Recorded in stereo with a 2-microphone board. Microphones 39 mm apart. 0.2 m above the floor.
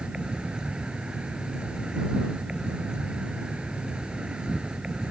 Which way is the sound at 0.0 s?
25° right (ahead or behind).